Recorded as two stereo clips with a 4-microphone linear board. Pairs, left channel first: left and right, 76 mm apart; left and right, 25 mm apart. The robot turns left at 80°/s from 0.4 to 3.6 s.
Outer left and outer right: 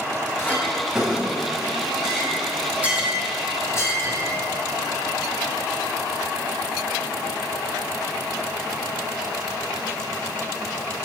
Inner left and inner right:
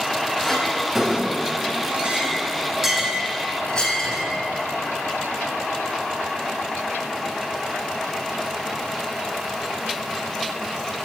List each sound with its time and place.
0.4 s a clink: 35° left (ahead or behind), 3 m; by 4.3 s 40° left (ahead or behind), 3 m